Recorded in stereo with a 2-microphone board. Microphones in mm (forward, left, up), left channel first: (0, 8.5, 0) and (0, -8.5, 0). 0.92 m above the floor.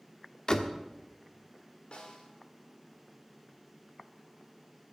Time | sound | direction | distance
0.5 | a door slam | 45° left (ahead or behind) | 1.2 m
1.9 | a snare drum | 75° left (ahead or behind) | 2.5 m